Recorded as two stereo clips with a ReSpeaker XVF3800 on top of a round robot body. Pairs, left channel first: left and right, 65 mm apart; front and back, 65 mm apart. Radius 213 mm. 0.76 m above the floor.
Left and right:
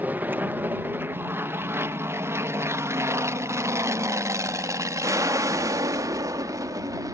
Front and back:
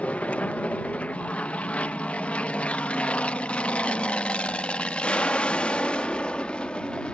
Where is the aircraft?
50° right; by 7.1 s 75° right.